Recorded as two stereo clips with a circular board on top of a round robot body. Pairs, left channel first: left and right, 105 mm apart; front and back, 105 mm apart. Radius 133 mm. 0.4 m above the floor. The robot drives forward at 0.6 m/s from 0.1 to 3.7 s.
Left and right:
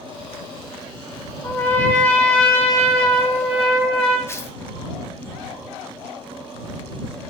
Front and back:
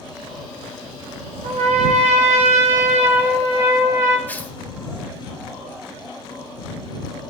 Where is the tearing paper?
55° left, 1.0 m.